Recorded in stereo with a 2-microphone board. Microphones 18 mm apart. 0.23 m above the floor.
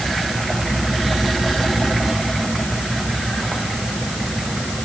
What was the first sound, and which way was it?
Only background noise.